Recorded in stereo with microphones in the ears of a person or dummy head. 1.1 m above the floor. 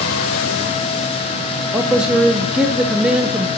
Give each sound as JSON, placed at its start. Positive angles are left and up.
{"t": 1.7, "sound": "a man speaking", "side_deg": -5, "distance_m": 0.6}